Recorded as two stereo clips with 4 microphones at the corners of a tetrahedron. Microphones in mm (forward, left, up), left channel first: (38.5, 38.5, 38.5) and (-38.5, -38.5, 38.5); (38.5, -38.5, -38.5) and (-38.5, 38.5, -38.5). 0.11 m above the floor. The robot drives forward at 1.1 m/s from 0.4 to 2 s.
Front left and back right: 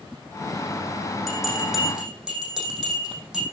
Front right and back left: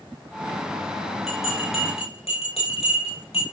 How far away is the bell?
About 6 m.